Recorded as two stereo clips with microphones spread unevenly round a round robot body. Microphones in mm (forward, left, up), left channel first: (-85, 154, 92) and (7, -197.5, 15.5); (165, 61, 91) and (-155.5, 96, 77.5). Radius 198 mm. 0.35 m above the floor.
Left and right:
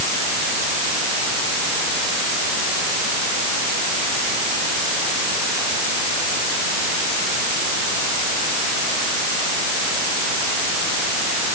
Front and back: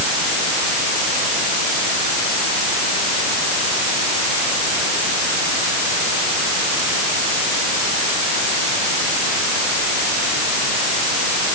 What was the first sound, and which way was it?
Only background noise.